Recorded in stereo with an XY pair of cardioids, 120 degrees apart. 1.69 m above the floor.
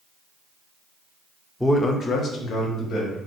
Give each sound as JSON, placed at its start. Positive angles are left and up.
{"t": 1.6, "sound": "a man speaking", "azimuth_deg": 5, "distance_m": 0.5}